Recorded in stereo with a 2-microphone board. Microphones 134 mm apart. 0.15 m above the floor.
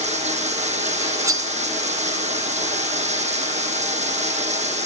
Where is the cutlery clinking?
25° right (ahead or behind), 0.8 m.